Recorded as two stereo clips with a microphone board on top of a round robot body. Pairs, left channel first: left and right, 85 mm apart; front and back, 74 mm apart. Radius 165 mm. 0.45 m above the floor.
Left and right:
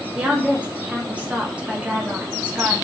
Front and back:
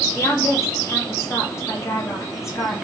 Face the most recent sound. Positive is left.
turn(degrees=-20)